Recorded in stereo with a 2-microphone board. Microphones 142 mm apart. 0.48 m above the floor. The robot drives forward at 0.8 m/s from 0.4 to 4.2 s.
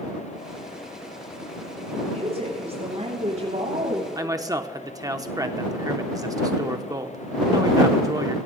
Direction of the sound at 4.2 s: 25° right (ahead or behind).